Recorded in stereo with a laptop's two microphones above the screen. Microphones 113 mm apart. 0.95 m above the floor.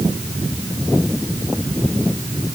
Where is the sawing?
I don't hear sawing.